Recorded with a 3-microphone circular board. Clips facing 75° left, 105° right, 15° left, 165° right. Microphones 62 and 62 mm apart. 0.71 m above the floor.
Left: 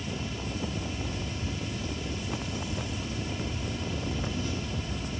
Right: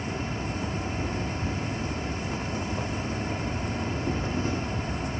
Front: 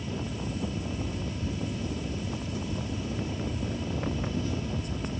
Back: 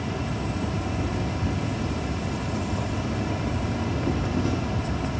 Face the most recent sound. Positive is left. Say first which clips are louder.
# right 4 dB, back 5 dB
turn(degrees=-155)